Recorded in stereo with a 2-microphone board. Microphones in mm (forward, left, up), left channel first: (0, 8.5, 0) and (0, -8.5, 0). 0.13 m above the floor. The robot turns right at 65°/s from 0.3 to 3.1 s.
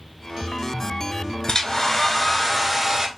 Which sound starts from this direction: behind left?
A hair dryer, at 1.5 s.